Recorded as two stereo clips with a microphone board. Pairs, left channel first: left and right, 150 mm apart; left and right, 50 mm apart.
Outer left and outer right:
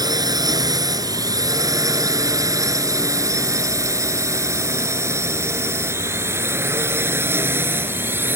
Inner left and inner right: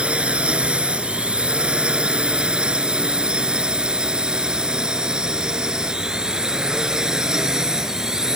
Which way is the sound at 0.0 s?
25° right (ahead or behind).